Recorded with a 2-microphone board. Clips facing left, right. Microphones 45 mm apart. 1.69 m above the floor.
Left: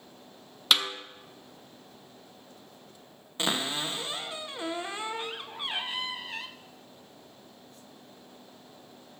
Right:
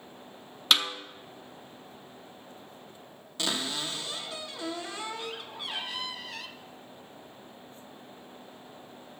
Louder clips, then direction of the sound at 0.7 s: Even; centre (ahead or behind).